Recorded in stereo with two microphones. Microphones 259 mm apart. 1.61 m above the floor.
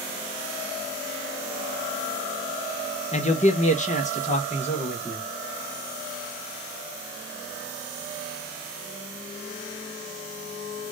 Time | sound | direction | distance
3.1 | a man speaking | 25° left (ahead or behind) | 0.6 m